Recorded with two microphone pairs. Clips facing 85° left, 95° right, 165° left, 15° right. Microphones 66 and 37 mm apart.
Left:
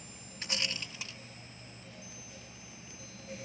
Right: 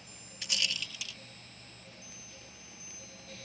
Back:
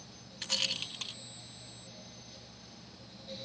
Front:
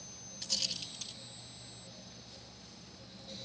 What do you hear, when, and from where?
0.4 s a rattle: 135° left